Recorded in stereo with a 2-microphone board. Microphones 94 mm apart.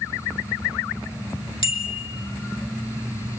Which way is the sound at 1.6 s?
70° left (ahead or behind).